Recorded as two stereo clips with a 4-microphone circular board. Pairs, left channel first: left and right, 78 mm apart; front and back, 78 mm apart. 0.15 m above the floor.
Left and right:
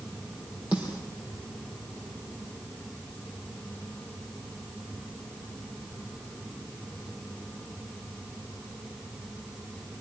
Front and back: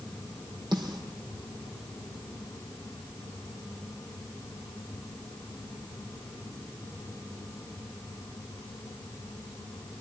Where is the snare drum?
160° right, 5 m.